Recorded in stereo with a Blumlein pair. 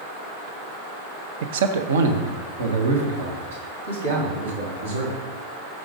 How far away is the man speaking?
About 0.6 m.